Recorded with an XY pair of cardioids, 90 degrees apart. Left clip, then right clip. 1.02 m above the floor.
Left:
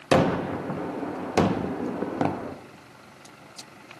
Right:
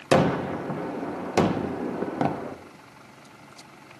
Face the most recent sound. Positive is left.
turn(degrees=-5)